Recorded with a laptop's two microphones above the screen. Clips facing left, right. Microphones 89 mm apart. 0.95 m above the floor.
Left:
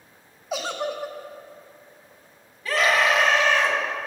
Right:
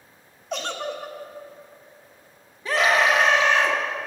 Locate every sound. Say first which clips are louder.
0.5 s a giggle: left 2 dB; 5° left (ahead or behind), 0.7 m
2.6 s a scream: right 1 dB; 20° right (ahead or behind), 2.5 m